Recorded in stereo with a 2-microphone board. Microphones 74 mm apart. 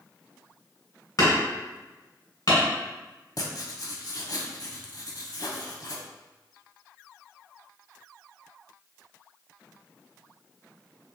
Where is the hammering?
55° left (ahead or behind), 1.7 m.